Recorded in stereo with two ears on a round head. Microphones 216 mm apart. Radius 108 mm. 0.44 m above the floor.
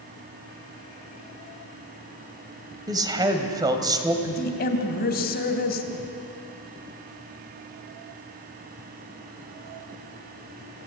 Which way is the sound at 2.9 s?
15° right (ahead or behind).